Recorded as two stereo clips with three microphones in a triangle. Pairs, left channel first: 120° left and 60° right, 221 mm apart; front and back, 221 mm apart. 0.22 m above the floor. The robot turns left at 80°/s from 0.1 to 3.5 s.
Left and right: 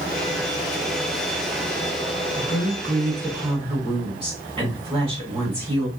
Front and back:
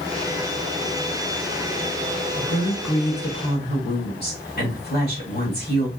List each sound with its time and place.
2.4 s a woman speaking: 85° left, 1.8 m; by 5.9 s 5° right, 1.8 m